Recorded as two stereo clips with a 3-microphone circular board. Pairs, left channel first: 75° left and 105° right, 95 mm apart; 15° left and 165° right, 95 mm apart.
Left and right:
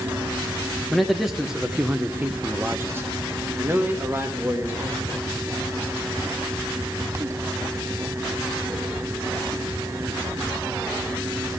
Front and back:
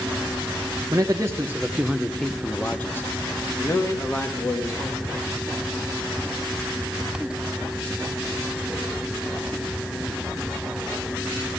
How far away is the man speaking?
About 0.8 m.